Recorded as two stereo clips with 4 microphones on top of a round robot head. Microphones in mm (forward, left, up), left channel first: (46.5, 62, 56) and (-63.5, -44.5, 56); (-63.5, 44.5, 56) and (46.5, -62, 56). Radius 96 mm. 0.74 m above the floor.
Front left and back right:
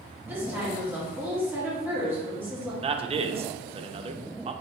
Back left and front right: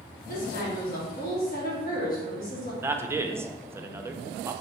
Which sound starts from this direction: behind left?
A woman speaking, at 0.3 s.